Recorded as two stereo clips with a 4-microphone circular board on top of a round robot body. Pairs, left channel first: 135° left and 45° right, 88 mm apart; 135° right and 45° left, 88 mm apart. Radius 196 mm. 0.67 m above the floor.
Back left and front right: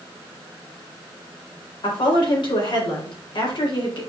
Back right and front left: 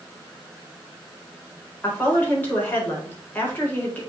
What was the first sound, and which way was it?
A woman speaking, 155° left.